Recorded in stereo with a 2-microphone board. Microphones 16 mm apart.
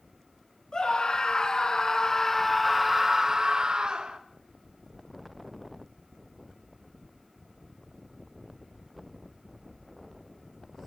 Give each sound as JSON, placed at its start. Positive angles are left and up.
{"t": 0.7, "sound": "a scream", "side_deg": 50, "distance_m": 2.5}